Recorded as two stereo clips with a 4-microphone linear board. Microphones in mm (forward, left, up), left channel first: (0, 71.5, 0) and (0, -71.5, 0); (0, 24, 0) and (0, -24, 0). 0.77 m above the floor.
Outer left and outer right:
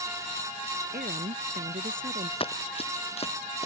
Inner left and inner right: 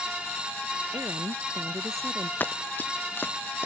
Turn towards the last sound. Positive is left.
turn(degrees=50)  # may be behind; listen again after turning